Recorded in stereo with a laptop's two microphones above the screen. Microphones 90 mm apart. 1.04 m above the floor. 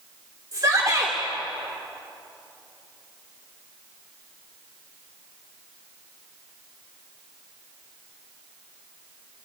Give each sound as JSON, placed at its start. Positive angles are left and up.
{"t": 0.5, "sound": "a shout", "side_deg": -40, "distance_m": 3.5}